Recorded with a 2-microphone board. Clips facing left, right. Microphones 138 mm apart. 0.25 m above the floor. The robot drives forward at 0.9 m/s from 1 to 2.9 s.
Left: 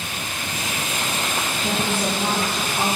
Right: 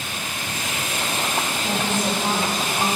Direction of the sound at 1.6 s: 35° left (ahead or behind).